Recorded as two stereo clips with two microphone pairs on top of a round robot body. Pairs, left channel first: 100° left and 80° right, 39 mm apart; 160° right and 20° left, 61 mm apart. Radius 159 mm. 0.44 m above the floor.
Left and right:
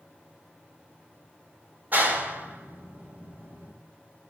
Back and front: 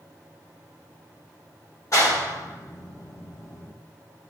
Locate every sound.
1.9 s a clap: 120° right, 3 m